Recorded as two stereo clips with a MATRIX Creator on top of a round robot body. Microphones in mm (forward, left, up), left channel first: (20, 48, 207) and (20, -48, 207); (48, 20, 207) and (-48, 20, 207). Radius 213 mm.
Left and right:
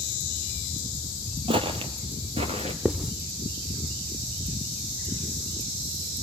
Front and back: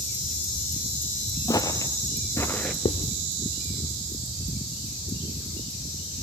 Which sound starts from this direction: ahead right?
Footsteps, at 1.5 s.